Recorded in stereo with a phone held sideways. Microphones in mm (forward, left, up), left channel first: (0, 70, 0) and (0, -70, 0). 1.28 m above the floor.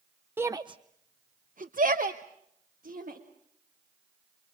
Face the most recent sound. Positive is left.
turn(degrees=-80)